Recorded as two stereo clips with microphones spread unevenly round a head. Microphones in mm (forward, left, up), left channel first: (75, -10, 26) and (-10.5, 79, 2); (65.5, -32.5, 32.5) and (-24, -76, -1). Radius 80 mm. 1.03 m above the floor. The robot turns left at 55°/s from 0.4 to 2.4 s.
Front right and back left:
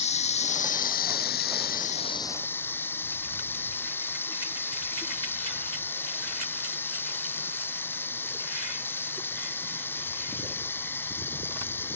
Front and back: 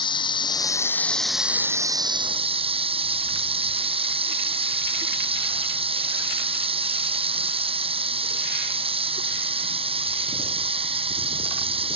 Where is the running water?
15° right; by 12.0 s 125° right.